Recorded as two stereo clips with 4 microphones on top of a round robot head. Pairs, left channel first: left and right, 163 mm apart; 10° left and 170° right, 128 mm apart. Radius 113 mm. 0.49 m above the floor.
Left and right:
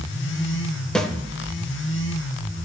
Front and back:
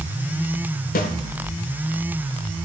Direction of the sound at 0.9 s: 5° left.